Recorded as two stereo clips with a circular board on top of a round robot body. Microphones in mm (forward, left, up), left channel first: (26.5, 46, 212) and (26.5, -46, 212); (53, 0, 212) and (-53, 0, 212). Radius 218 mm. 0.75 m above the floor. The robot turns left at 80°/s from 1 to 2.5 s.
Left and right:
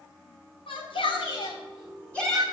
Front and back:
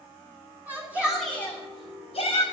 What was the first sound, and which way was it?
A shout, 105° left.